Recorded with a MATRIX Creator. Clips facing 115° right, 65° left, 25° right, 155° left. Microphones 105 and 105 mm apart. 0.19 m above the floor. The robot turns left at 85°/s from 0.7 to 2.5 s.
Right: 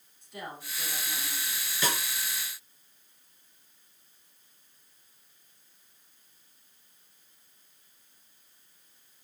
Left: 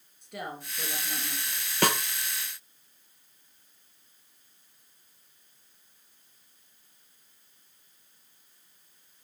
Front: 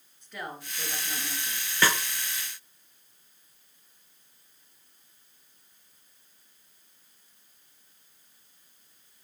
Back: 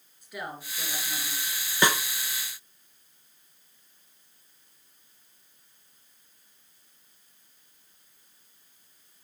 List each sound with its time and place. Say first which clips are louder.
0.2 s a woman speaking: left 3 dB, back 1 dB; 75° left, 3.5 m; by 1.7 s 5° right, 3.5 m
1.8 s a snare drum: left 6 dB, back 1 dB; 90° left, 0.7 m; by 2.0 s 70° left, 0.7 m